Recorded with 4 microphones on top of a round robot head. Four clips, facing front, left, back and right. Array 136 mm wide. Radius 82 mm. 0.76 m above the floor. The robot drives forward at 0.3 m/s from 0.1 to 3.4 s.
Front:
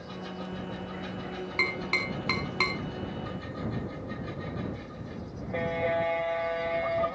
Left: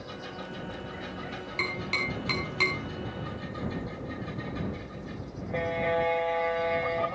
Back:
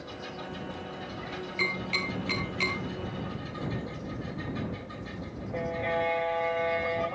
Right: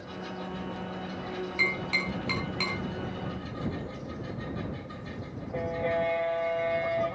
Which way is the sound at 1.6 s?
15° left.